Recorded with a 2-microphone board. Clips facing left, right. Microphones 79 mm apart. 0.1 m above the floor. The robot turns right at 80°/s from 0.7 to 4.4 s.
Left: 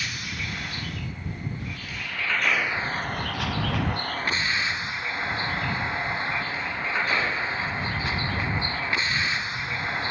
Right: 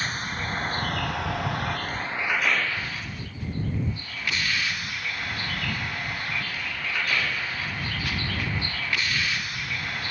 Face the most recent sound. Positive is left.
turn(degrees=155)